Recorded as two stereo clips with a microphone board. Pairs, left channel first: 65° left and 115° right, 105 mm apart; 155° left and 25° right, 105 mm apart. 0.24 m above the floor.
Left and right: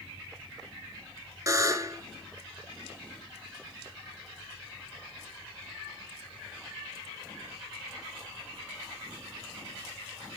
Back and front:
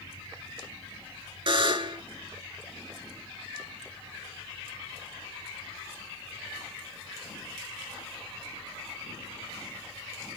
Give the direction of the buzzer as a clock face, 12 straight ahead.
2 o'clock.